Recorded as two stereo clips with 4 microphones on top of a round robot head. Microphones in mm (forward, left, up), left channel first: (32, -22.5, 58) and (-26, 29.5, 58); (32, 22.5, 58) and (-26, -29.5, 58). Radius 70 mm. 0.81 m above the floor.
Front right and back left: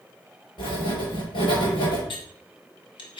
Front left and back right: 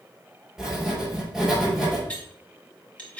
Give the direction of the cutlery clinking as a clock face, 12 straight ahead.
1 o'clock.